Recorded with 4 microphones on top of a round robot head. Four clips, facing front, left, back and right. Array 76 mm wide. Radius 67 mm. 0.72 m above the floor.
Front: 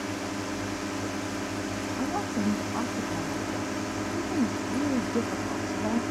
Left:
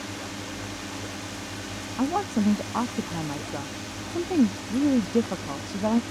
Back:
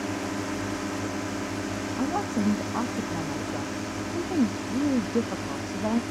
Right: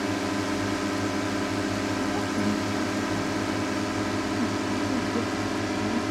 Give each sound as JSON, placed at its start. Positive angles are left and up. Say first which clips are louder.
{"t": 0.0, "sound": "a drone", "louder": "right 9 dB, back 2 dB", "azimuth_deg": -100}
{"t": 2.0, "sound": "a woman speaking", "louder": "left 2 dB, back 3 dB", "azimuth_deg": 105}